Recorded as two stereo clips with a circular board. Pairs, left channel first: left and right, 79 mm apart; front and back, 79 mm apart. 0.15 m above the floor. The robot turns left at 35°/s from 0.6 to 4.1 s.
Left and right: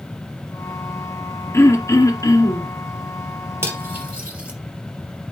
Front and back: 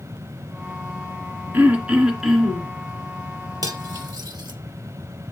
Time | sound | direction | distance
1.5 | throat clearing | 120° left | 2 m
3.6 | cutlery clinking | 145° right | 2.5 m